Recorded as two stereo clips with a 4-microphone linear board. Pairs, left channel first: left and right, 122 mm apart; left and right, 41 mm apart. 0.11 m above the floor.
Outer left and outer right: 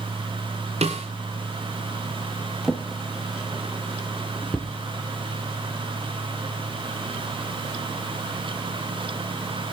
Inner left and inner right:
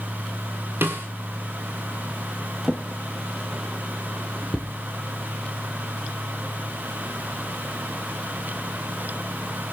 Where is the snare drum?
60° right (ahead or behind), 2 m.